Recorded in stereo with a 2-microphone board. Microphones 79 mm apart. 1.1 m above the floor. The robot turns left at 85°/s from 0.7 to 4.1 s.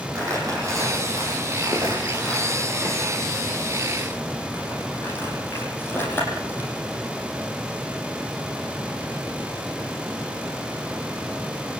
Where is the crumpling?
45° right (ahead or behind), 9 m; by 6.7 s 25° left (ahead or behind), 9 m.